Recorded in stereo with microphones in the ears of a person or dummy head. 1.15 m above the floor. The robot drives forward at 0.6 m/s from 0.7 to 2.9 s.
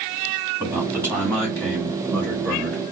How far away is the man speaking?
About 1.3 m.